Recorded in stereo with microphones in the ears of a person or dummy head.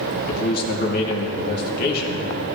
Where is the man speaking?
55° left (ahead or behind), 2.5 m.